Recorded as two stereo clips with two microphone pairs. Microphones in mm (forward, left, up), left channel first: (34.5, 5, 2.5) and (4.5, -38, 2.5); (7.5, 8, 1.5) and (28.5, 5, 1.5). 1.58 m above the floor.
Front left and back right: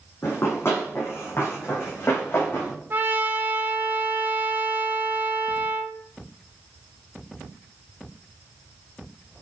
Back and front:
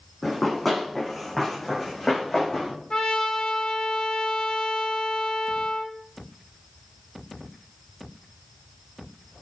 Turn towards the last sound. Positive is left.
turn(degrees=-155)